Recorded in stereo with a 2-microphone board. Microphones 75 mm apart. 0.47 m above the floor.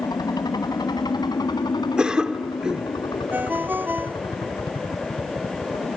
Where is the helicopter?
60° left (ahead or behind); by 6.0 s 70° left (ahead or behind).